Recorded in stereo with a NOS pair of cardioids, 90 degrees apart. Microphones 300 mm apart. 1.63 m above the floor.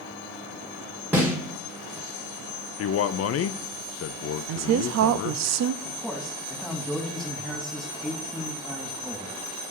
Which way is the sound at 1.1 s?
5° right.